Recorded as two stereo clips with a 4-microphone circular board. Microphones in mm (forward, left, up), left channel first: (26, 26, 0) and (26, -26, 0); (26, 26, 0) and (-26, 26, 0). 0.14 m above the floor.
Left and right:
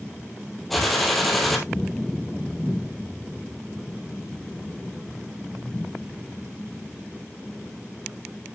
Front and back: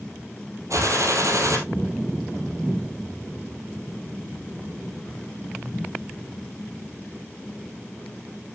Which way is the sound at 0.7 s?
Straight behind.